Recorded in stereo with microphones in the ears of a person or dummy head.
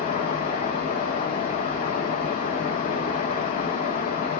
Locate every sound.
0.0 s running water: 35° left (ahead or behind), 1.2 m